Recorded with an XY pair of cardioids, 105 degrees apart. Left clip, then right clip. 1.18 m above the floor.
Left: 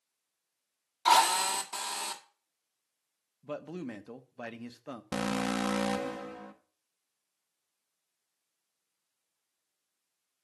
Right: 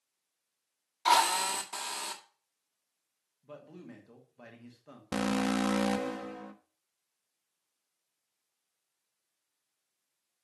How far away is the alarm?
About 1.3 m.